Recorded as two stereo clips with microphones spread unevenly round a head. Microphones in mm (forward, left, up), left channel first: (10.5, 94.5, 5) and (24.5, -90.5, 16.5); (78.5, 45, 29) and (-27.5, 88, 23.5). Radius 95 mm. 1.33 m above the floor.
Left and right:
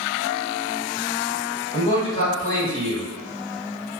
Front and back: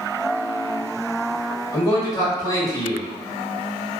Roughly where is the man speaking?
Ahead left.